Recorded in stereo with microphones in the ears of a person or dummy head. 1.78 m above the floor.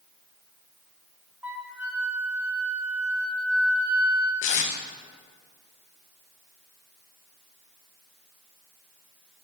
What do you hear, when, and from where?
1.4 s a flute: 10° right (ahead or behind), 0.8 m
4.4 s tape being pulled: 45° left (ahead or behind), 0.7 m